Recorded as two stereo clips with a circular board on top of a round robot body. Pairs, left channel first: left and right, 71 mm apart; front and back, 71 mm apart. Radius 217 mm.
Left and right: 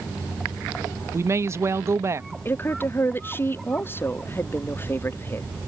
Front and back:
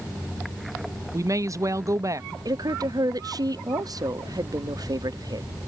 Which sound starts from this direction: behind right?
A woman speaking, at 1.1 s.